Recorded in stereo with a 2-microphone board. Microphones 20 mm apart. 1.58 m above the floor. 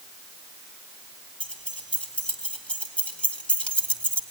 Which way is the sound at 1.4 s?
80° left.